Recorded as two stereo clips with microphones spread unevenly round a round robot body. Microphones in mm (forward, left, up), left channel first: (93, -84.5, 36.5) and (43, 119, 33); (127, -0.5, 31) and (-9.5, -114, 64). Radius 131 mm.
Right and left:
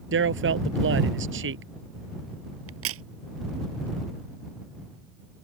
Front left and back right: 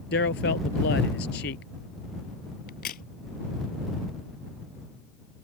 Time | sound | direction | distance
0.1 | a man speaking | 80° left | ?
2.7 | a crack | 95° left | ?